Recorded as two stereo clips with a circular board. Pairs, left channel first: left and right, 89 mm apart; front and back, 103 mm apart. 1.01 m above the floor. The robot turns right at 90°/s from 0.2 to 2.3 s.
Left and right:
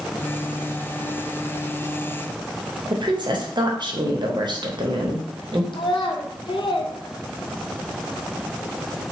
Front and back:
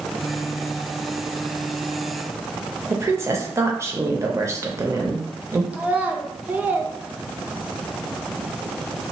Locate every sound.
2.9 s a woman speaking: 120° right, 0.7 m
5.7 s a child speaking: 105° left, 0.6 m